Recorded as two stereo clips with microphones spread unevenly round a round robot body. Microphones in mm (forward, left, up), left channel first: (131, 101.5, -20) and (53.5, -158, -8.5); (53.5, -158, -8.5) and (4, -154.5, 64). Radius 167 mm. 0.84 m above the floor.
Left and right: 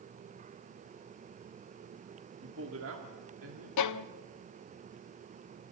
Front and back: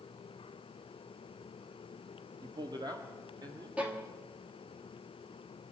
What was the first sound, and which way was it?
A man speaking, 155° right.